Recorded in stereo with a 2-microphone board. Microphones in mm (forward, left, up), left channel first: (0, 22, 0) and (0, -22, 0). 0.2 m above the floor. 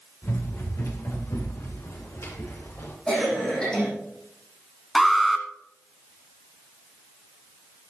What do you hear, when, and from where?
0.2 s running footsteps: 75° left (ahead or behind), 4 m; by 3.0 s 70° left (ahead or behind), 6 m
3.1 s a cough: 20° left (ahead or behind), 8 m
5.0 s an alarm: centre (ahead or behind), 1.2 m